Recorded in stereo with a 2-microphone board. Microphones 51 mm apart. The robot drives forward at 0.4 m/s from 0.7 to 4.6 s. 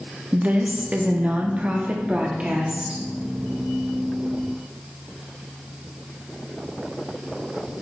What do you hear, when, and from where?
0.3 s a woman speaking: 30° right (ahead or behind), 0.7 m; by 3.0 s 20° right (ahead or behind), 1.0 m